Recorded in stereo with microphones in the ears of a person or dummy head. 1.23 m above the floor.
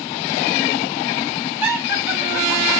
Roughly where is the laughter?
Centre.